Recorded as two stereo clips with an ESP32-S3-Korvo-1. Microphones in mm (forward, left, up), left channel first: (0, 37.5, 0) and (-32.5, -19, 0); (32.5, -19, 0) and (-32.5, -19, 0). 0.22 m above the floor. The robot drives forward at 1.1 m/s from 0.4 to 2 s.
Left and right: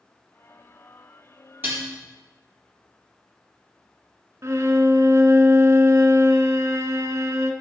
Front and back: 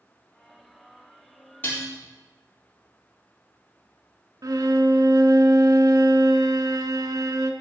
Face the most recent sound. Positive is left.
turn(degrees=-160)